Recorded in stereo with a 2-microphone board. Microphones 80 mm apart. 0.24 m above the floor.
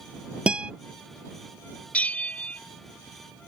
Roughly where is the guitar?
Centre.